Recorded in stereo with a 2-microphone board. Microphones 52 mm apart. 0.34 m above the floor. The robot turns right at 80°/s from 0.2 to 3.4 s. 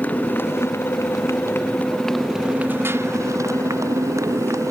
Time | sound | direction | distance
0.0 | a motorcycle | 30° left (ahead or behind) | ?